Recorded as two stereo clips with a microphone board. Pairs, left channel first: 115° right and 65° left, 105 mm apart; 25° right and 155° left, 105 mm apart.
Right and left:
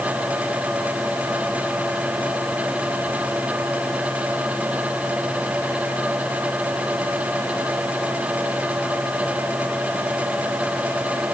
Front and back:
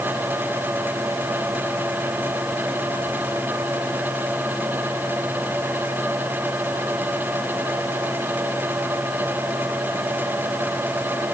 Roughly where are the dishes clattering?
I don't hear dishes clattering.